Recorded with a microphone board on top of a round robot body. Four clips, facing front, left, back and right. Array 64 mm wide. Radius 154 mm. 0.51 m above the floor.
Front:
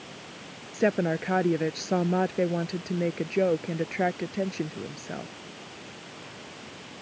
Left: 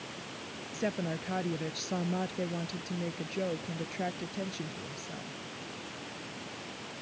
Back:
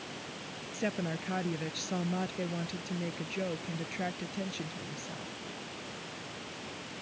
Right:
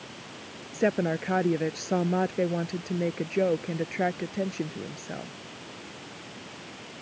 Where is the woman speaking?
35° right.